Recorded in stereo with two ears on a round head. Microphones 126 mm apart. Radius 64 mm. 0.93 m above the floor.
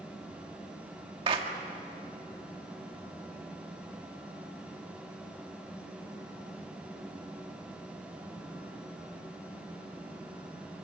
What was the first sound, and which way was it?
A clap, 35° right (ahead or behind).